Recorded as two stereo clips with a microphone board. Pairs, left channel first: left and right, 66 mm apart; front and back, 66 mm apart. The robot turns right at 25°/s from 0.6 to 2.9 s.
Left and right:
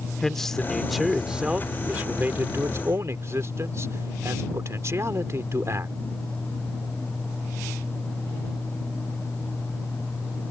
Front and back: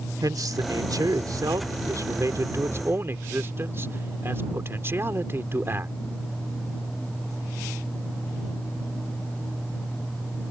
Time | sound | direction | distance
0.2 | a man speaking | 175° left | ?